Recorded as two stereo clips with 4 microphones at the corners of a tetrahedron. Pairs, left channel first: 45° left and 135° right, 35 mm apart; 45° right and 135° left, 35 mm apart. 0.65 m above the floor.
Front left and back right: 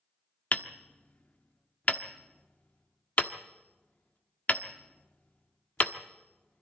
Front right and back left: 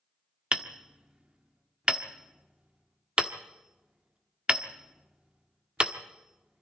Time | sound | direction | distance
0.5 | hammering | 80° left | 1.2 m